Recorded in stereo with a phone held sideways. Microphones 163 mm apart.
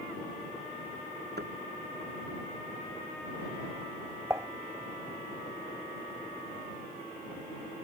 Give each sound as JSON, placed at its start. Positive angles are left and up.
{"t": 1.4, "sound": "a thud", "side_deg": -85}
{"t": 4.3, "sound": "dishes clattering", "side_deg": -15}